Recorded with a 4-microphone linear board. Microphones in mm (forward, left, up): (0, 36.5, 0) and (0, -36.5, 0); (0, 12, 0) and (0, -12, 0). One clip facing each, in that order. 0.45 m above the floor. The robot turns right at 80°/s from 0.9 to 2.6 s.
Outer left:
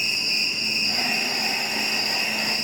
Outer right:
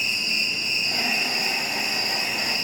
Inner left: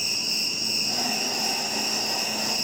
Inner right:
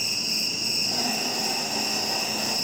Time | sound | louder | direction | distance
0.0 | an insect | outer right 1 dB, even | 15° left | 5 m